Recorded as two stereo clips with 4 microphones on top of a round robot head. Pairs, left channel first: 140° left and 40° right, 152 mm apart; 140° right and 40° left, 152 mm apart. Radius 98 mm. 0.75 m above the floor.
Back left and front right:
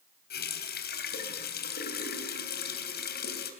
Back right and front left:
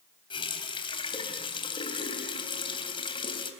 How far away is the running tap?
About 3 m.